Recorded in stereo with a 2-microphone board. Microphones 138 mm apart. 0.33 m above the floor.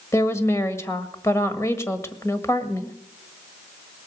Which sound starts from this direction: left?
A woman speaking, at 0.1 s.